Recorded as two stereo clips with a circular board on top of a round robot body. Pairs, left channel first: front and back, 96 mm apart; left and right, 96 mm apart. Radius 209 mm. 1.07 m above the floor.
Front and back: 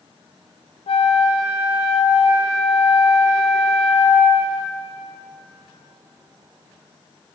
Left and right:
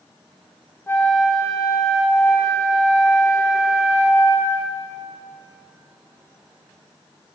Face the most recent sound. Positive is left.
turn(degrees=25)